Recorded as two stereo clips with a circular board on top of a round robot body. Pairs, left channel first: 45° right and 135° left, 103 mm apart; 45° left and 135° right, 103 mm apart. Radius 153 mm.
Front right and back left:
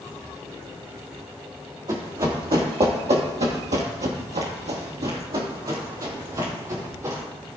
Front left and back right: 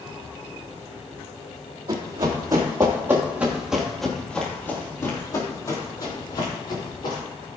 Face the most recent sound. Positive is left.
turn(degrees=80)